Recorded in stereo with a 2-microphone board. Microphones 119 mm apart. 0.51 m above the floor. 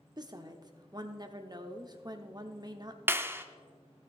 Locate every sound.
0.2 s a woman speaking: 35° right (ahead or behind), 0.9 m
3.1 s a clap: 20° right (ahead or behind), 0.6 m